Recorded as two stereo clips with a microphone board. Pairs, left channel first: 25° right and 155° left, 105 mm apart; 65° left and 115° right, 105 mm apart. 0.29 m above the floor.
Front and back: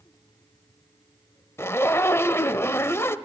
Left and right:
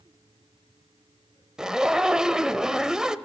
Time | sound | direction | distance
1.6 | a zipper | 40° right | 0.5 m